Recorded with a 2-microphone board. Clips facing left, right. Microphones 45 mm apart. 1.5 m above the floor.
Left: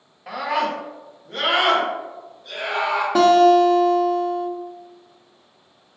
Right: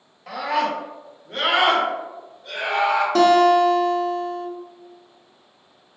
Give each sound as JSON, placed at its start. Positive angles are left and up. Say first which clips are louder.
{"t": 0.3, "sound": "a scream", "louder": "even", "side_deg": 10, "distance_m": 1.2}
{"t": 3.1, "sound": "a guitar", "louder": "left 2 dB", "side_deg": 10, "distance_m": 0.7}